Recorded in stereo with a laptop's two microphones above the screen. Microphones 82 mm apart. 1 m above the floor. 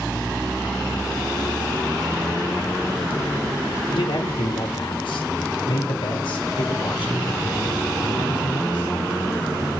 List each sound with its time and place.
3.9 s a man speaking: 80° left, 2 m; by 8.9 s 75° left (ahead or behind), 6 m